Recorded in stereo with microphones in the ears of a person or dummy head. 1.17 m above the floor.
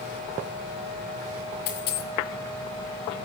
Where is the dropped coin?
50° left (ahead or behind), 1.9 m.